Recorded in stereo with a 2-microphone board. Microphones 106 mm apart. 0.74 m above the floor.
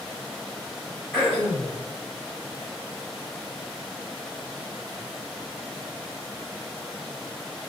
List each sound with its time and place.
1.1 s throat clearing: 15° left (ahead or behind), 1.5 m